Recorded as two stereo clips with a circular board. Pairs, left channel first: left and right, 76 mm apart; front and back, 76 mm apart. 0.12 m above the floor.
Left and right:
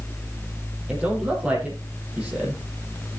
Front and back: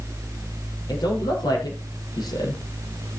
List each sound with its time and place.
0.9 s a man speaking: 20° right, 5 m